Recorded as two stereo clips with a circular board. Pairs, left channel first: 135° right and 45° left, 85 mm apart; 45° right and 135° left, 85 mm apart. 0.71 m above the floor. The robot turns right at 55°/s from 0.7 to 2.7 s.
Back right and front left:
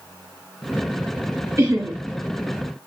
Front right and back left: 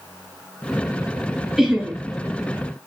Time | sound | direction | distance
1.6 | laughter | 50° left | 1.2 m